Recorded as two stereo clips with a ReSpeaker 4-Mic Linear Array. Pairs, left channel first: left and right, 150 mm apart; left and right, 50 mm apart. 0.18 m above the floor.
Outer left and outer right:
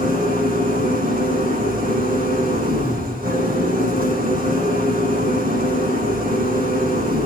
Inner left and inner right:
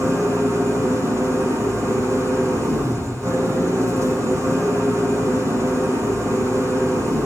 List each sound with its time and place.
0.0 s an engine running: 75° right (ahead or behind), 8 m